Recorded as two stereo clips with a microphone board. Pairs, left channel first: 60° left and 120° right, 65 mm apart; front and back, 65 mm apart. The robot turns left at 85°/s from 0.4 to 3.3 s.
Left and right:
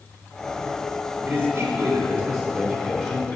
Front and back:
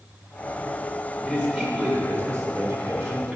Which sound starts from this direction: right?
A man speaking, at 1.3 s.